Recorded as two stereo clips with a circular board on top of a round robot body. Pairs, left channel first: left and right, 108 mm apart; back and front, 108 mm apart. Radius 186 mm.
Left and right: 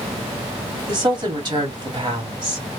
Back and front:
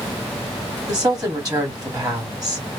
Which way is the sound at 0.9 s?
50° right.